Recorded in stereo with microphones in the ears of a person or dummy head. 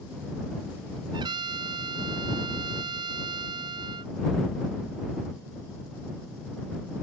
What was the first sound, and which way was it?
A trumpet, 35° right (ahead or behind).